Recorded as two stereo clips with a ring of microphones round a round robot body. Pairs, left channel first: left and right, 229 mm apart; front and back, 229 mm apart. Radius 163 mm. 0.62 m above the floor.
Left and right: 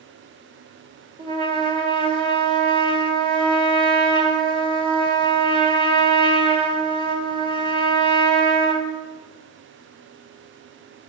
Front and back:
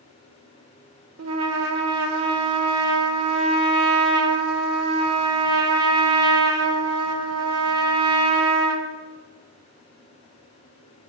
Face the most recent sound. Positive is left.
turn(degrees=-160)